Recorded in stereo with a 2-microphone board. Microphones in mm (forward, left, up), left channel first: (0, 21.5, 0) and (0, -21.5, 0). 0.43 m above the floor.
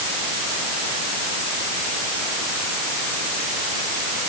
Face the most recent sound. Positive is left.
No sound to turn to.